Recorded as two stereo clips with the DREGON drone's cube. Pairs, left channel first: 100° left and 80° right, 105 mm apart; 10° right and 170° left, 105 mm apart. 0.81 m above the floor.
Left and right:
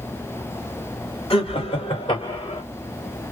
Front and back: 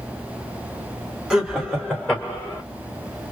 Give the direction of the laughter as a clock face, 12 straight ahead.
9 o'clock.